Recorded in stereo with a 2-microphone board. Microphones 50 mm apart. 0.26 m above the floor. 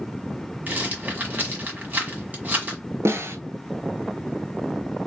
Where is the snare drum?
65° right (ahead or behind), 0.9 m.